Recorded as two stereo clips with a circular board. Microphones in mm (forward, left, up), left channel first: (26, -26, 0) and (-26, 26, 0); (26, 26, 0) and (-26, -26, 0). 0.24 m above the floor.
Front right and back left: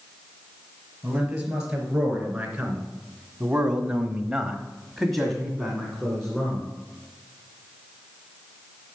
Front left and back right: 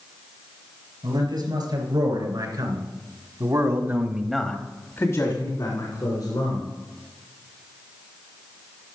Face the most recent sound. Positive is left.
turn(degrees=40)